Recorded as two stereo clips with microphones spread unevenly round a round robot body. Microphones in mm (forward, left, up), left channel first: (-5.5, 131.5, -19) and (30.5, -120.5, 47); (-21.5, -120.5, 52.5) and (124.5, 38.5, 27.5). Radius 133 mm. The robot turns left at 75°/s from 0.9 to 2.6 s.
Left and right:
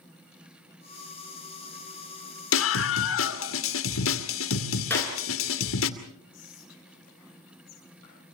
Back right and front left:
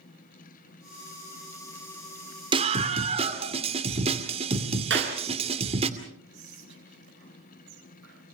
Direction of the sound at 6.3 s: 85° left.